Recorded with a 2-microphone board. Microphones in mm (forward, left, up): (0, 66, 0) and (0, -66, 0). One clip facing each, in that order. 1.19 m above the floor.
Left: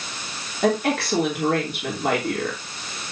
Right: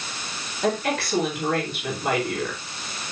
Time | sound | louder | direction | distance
0.6 | a woman speaking | left 3 dB | 60° left (ahead or behind) | 3 m